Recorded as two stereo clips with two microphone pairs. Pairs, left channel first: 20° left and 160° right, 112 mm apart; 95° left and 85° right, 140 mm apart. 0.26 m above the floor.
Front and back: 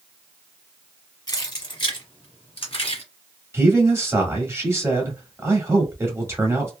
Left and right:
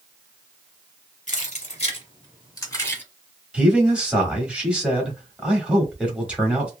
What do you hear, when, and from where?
1.3 s keys jangling: 70° left, 1.7 m; by 3.0 s 20° left, 1.5 m
3.5 s a man speaking: 160° right, 1.2 m